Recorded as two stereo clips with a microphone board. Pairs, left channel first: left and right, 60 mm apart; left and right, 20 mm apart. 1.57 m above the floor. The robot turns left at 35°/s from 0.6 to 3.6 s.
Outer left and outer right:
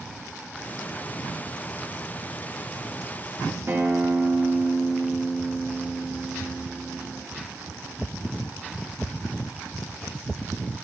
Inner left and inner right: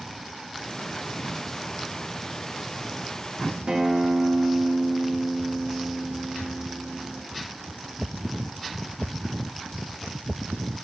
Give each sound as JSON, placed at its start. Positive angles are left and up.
{"t": 3.7, "sound": "a guitar", "side_deg": -40, "distance_m": 1.5}